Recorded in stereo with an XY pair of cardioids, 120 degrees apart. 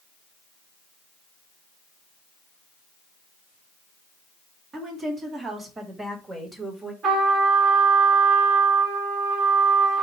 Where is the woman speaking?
35° right, 2.5 m; by 6.9 s 10° right, 1.5 m.